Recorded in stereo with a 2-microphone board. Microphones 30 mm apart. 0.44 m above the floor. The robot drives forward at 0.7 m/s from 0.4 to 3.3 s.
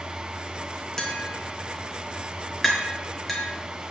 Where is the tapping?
15° left (ahead or behind), 3 m; by 3.5 s 10° left (ahead or behind), 4.5 m.